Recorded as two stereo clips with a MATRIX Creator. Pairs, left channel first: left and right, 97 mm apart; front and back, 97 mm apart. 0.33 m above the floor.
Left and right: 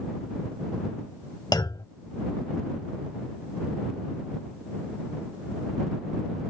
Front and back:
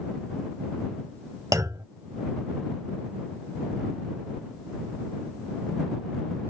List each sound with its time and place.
1.5 s a clunk: 130° left